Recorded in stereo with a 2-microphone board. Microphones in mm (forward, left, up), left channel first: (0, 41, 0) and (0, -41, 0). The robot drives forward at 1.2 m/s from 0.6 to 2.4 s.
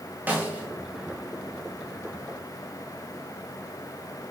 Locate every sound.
0.3 s a snare drum: 25° right (ahead or behind), 2 m